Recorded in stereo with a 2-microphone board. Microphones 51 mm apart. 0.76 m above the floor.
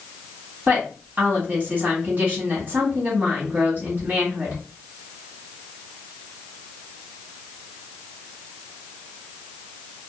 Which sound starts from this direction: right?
A woman speaking, at 0.7 s.